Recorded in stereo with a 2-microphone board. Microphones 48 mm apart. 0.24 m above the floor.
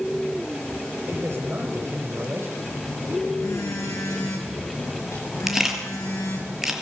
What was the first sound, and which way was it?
A man speaking, 50° right (ahead or behind).